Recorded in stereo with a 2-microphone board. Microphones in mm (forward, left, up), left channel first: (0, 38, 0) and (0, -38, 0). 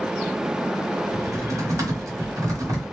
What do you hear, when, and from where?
1.1 s typing on a keyboard: 50° right (ahead or behind), 1.3 m